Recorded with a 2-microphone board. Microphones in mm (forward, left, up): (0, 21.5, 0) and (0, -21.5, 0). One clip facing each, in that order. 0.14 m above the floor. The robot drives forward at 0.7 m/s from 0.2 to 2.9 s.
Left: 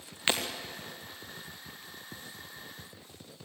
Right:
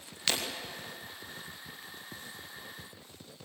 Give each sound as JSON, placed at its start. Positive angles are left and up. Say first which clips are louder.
{"t": 0.3, "sound": "breaking glass", "louder": "left 3 dB", "side_deg": 25, "distance_m": 4.5}